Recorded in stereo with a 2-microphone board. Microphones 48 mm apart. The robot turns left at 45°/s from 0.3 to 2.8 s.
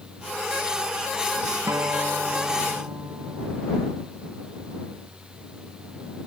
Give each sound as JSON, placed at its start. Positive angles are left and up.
{"t": 1.7, "sound": "a guitar", "azimuth_deg": -75}